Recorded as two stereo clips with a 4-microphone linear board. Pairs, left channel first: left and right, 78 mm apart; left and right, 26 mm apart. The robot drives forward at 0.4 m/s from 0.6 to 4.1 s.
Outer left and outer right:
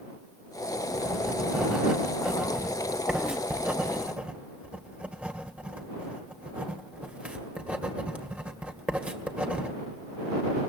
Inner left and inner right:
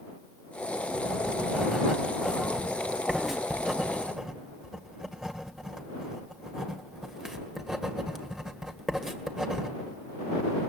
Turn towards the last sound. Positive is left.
turn(degrees=-15)  # may be behind; listen again after turning